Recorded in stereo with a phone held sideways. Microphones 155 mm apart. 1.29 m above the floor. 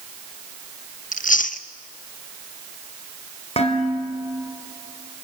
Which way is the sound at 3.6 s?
40° left (ahead or behind).